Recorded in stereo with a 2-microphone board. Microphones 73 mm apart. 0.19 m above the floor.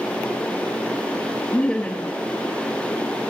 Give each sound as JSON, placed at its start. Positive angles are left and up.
{"t": 1.5, "sound": "laughter", "side_deg": 15, "distance_m": 2.5}